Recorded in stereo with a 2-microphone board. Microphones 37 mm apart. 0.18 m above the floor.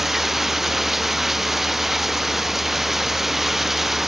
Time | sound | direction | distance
0.0 | running water | 5° right (ahead or behind) | ?